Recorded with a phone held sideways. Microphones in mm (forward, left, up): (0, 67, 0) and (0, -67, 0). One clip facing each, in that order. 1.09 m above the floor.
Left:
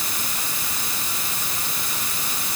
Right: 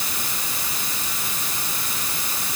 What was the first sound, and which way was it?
Only background noise.